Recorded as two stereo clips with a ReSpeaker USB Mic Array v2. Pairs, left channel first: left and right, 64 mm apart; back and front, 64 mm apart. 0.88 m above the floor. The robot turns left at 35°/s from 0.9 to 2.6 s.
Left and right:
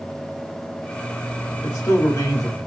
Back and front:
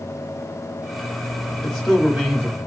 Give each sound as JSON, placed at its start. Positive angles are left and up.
{"t": 1.6, "sound": "a man speaking", "azimuth_deg": 105, "distance_m": 1.5}